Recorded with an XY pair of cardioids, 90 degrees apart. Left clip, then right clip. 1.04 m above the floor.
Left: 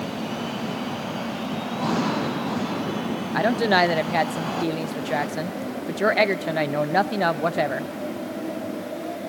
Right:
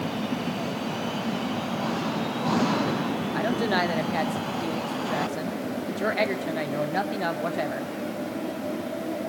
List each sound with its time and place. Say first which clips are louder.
3.3 s a woman speaking: left 7 dB; 50° left, 0.6 m